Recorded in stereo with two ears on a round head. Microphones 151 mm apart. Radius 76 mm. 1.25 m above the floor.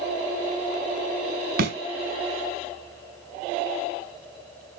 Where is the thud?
60° right (ahead or behind), 2 m.